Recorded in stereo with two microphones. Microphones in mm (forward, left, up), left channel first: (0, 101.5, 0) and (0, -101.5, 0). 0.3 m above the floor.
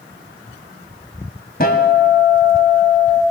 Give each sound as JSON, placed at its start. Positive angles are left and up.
{"t": 1.6, "sound": "a guitar", "side_deg": 45, "distance_m": 2.0}